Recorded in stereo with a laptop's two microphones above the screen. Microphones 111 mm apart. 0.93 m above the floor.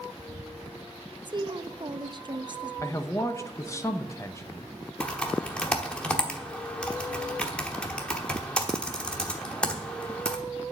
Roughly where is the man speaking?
Left.